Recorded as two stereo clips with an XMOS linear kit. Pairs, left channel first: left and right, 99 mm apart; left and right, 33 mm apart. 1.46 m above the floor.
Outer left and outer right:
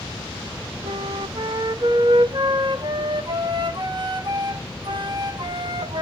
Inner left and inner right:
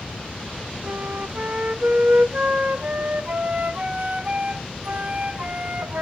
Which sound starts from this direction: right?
A flute, at 0.8 s.